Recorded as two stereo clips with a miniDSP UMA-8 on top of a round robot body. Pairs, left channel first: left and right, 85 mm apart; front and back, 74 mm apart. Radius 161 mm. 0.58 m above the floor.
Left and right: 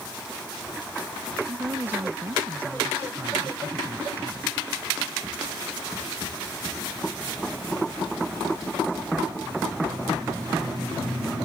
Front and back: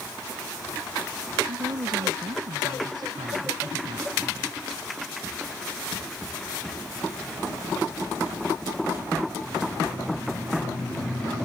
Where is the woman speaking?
160° right.